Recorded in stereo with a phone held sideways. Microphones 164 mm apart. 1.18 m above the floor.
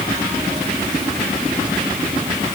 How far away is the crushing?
I don't hear crushing.